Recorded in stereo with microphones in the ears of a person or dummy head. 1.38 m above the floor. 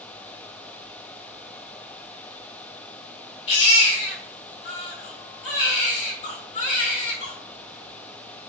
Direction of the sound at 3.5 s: 35° left (ahead or behind).